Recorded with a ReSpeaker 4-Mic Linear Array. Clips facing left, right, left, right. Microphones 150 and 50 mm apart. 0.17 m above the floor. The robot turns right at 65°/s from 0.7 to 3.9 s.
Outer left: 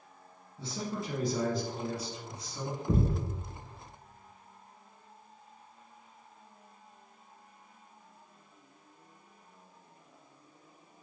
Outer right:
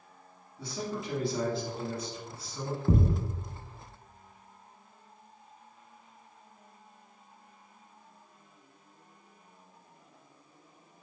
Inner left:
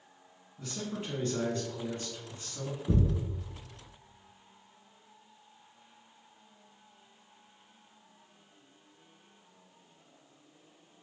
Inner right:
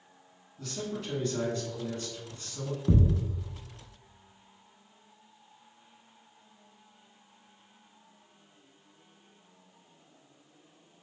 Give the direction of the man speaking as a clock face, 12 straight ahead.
11 o'clock.